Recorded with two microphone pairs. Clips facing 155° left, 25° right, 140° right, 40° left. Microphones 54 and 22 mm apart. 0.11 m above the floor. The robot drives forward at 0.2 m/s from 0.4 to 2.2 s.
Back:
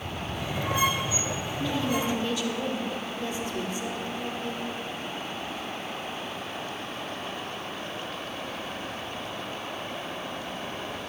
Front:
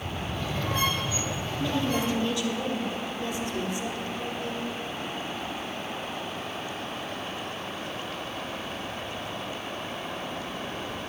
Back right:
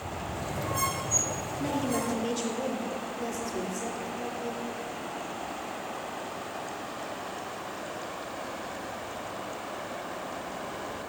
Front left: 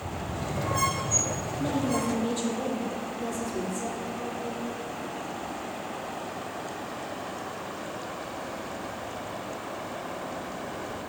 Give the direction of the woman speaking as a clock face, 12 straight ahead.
4 o'clock.